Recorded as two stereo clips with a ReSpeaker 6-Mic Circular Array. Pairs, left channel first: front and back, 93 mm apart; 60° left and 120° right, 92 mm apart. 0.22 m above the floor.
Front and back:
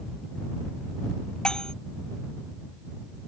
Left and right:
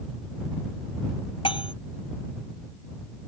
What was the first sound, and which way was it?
Cutlery clinking, 80° left.